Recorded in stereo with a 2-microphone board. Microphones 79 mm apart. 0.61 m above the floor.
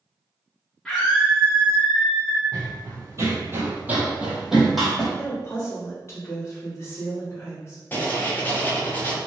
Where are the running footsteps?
45° right (ahead or behind), 0.9 m; by 5.1 s centre (ahead or behind), 1.0 m.